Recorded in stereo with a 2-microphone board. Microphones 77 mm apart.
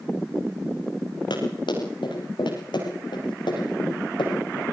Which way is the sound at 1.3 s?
75° left (ahead or behind).